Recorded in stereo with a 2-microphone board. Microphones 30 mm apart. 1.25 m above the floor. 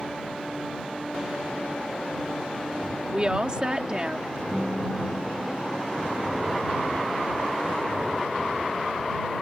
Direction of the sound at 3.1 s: 25° right (ahead or behind).